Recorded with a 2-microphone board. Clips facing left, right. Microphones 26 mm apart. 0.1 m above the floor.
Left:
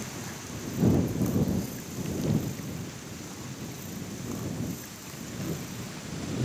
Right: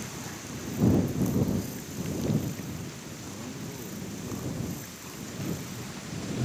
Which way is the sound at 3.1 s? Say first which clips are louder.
Right 1 dB; 70° right (ahead or behind).